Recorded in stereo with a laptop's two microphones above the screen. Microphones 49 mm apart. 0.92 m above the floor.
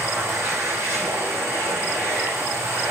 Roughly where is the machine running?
Right.